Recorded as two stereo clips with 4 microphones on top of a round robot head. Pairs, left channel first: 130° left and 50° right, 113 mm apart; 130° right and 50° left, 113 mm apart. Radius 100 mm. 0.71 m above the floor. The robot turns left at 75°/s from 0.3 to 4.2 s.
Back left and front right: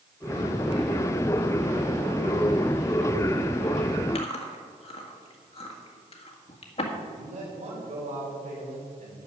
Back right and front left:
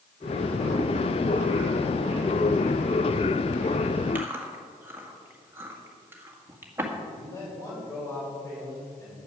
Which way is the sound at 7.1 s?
70° right.